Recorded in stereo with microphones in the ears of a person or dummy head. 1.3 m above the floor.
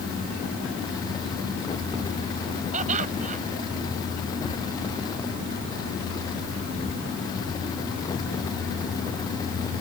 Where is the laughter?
40° right (ahead or behind).